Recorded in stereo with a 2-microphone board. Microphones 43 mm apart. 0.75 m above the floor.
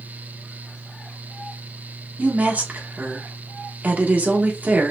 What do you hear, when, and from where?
2.2 s a woman speaking: 35° right (ahead or behind), 1.1 m